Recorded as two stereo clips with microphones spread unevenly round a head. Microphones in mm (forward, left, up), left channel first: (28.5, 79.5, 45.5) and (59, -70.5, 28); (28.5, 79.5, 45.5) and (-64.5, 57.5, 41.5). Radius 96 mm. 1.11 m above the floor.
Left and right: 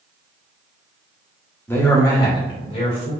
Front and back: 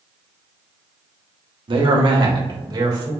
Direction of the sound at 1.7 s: Straight behind.